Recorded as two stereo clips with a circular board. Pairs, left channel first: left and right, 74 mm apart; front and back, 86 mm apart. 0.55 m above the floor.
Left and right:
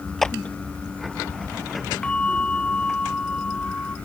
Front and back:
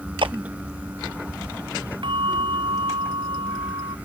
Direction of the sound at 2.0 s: 165° left.